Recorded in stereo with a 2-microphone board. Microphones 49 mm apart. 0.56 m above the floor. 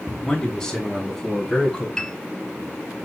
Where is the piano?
15° left (ahead or behind), 2 m.